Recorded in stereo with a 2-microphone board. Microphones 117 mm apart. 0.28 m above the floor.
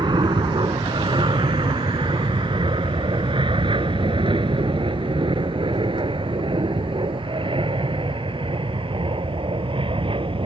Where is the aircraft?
40° right (ahead or behind); by 10.5 s 50° right (ahead or behind).